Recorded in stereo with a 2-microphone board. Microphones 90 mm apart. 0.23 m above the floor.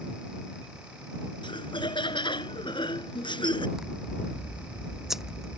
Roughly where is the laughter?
Left.